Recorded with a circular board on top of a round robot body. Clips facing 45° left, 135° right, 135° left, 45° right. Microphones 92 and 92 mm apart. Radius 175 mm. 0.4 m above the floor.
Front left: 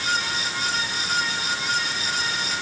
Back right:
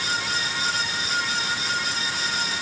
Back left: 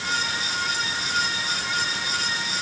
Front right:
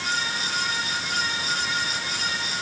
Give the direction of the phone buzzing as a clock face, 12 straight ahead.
No phone buzzing in this recording.